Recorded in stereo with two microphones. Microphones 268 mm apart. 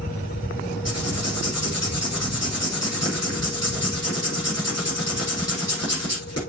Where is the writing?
65° left (ahead or behind), 6 m.